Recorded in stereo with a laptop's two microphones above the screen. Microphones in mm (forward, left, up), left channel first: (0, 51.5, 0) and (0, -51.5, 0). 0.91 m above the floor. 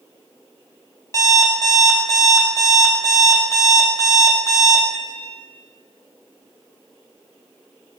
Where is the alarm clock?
30° left (ahead or behind), 0.5 m.